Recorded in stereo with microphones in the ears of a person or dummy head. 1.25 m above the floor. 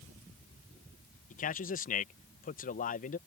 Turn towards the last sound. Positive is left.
turn(degrees=40)  # may be behind; listen again after turning